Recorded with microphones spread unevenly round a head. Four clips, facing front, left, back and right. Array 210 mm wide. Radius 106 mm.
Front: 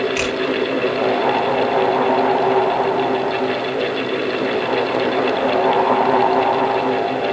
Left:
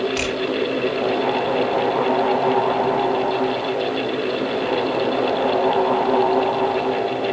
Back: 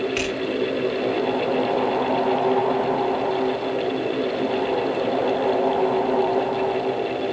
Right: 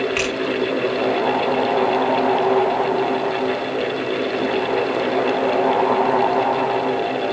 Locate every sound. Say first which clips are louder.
0.1 s scissors: right 2 dB, front 4 dB; 145° right, 9 m